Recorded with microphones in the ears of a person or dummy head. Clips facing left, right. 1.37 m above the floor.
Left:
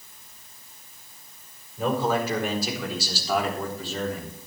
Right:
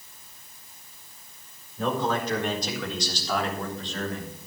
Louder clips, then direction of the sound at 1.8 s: Left 2 dB; 10° left (ahead or behind).